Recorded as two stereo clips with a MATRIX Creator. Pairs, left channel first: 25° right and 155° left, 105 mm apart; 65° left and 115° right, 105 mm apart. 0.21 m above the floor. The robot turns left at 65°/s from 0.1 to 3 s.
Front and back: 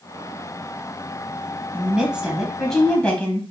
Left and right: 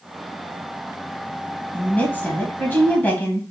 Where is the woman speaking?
115° left, 1.5 m; by 3.4 s 35° left, 1.5 m.